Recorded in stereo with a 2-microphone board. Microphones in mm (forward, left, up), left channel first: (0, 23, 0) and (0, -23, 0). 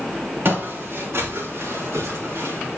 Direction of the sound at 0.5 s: 50° right (ahead or behind).